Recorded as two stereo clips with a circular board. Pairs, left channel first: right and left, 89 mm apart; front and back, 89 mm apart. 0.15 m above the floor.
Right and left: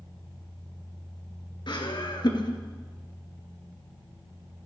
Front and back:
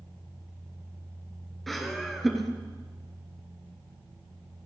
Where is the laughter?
90° right, 2.5 m.